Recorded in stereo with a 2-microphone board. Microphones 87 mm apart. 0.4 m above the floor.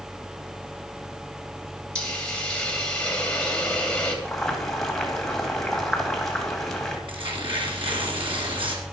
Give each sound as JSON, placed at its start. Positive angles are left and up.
{"t": 1.9, "sound": "a hiss", "side_deg": 10, "distance_m": 2.5}
{"t": 4.2, "sound": "boiling", "side_deg": 5, "distance_m": 2.0}
{"t": 7.1, "sound": "tearing paper", "side_deg": -75, "distance_m": 3.0}